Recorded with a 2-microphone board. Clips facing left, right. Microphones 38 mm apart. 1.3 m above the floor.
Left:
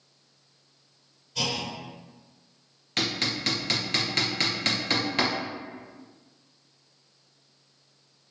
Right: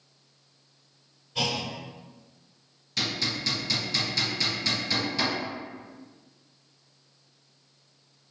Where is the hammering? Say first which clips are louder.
Left 1 dB; 55° left (ahead or behind), 0.5 m.